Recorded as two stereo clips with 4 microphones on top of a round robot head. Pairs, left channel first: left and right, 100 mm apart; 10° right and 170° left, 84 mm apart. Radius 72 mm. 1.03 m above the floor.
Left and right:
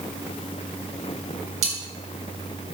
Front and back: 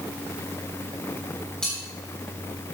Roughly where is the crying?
No crying in this recording.